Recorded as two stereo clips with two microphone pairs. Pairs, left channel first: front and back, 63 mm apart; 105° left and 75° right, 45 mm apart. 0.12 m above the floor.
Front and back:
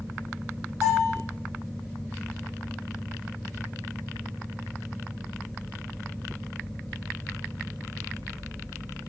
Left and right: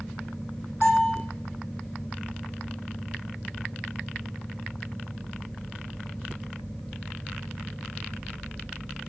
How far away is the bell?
About 3.5 m.